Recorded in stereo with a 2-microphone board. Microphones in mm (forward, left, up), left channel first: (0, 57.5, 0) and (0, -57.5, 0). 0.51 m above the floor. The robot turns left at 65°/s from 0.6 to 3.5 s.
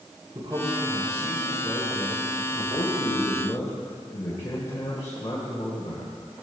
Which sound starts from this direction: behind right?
A man speaking, at 0.3 s.